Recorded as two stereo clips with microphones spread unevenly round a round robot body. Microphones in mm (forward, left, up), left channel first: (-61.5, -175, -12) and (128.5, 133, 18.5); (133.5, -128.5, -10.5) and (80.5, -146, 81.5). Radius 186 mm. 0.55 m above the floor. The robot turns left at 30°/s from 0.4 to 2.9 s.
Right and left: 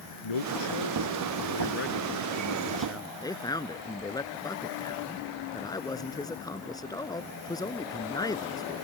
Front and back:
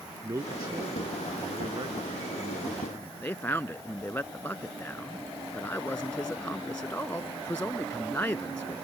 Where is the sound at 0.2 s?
140° right; by 3.1 s 145° left.